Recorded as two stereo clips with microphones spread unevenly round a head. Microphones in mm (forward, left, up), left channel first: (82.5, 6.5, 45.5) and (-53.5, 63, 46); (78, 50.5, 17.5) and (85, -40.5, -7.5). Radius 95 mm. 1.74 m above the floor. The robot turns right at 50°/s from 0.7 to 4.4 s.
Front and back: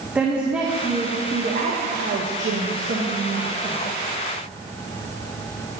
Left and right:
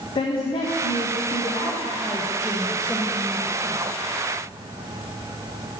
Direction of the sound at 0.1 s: 75° left.